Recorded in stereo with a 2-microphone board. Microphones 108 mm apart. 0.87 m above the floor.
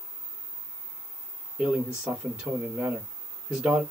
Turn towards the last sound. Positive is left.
turn(degrees=-10)  # may be behind; listen again after turning